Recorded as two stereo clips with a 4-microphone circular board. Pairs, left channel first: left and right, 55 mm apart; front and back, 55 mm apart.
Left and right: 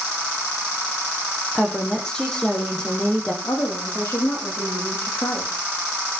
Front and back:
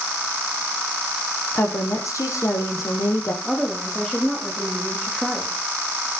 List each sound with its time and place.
1.6 s a woman speaking: 15° left, 4.5 m
3.4 s a woman speaking: 75° left, 9.5 m